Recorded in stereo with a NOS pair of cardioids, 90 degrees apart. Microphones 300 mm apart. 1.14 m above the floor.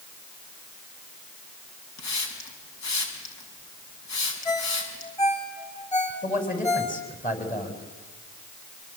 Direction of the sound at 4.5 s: 20° left.